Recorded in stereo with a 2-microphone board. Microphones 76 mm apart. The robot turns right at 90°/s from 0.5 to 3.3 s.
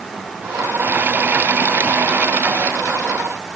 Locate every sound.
Only background noise.